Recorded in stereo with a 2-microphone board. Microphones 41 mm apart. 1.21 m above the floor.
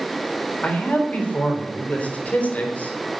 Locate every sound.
0.6 s a man speaking: 40° left (ahead or behind), 3.5 m